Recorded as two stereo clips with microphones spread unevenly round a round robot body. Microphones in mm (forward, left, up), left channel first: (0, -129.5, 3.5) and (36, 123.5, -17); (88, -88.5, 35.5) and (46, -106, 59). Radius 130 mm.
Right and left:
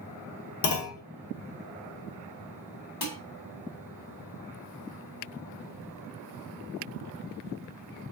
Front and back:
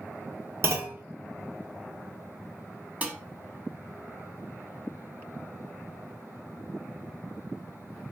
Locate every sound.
0.6 s a clunk: 120° right, 0.8 m
3.0 s dishes clattering: 90° right, 1.5 m